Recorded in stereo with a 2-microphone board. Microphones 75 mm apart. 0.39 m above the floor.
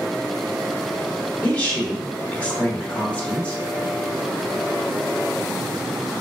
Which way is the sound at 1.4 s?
20° left (ahead or behind).